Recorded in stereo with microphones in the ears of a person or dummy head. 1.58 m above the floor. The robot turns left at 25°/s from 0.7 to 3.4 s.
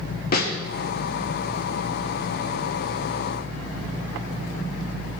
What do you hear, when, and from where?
0.3 s a snare drum: 55° left (ahead or behind), 1.3 m